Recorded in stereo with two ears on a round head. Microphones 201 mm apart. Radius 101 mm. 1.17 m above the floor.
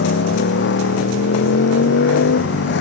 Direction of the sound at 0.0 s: 55° left (ahead or behind).